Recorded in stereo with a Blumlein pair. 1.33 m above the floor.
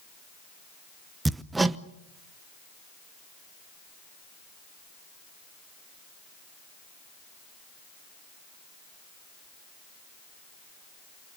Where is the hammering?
10° right, 0.9 m.